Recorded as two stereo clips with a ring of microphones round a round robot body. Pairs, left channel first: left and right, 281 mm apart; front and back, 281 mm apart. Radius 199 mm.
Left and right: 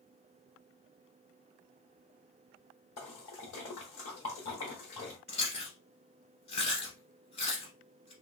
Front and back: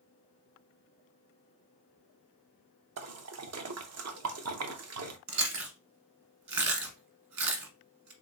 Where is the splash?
140° left, 0.7 m.